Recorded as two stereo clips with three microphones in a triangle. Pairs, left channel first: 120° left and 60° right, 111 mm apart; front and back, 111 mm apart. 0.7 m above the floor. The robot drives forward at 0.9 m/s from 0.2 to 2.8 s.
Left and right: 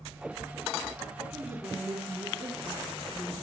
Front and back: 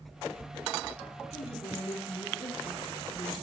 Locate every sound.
1.3 s a woman speaking: 15° left, 7 m; by 3.3 s 20° left, 5.5 m